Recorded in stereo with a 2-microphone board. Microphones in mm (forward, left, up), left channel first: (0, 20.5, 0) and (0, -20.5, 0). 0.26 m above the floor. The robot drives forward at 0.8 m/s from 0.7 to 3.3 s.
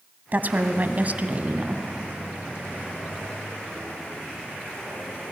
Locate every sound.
0.3 s a woman speaking: 45° right (ahead or behind), 1.9 m; by 1.8 s 35° right (ahead or behind), 2.5 m